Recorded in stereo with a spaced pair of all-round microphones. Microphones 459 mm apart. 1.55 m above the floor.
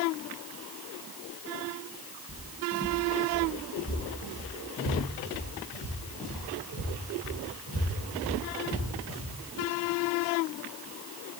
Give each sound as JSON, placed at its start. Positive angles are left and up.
{"t": 2.3, "sound": "footsteps", "side_deg": 30, "distance_m": 1.7}